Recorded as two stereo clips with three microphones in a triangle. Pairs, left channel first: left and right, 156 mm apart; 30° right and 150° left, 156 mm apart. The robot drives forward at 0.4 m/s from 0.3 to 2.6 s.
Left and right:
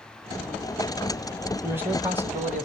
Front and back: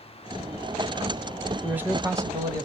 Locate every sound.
1.6 s a man speaking: 140° right, 1.0 m; by 2.7 s 160° right, 1.2 m